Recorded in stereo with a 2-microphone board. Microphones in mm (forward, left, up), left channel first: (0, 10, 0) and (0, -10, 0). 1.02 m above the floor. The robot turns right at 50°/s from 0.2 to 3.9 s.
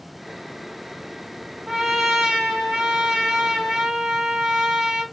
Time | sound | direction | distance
1.7 | a trumpet | 150° right | 1.4 m